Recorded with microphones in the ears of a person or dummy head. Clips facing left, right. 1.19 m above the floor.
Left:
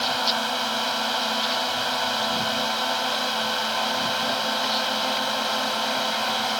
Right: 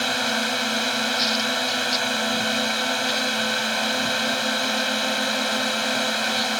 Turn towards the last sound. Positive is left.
turn(degrees=-30)  # may be behind; listen again after turning